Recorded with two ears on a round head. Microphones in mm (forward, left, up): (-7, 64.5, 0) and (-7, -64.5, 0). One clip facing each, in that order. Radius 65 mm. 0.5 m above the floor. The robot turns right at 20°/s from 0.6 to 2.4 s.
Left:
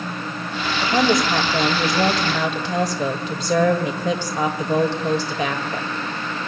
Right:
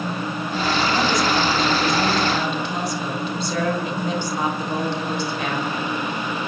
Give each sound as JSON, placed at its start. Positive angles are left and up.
{"t": 0.8, "sound": "a woman speaking", "azimuth_deg": 40, "distance_m": 1.8}